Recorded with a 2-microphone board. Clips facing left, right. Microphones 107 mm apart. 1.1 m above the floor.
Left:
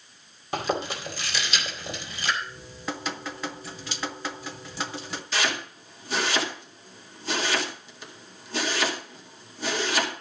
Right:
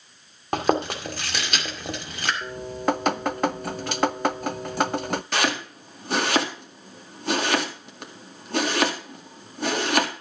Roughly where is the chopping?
Right.